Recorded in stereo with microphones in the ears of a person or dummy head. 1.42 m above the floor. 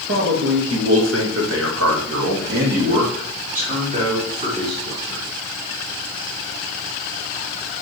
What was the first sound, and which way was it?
A man speaking, 65° right (ahead or behind).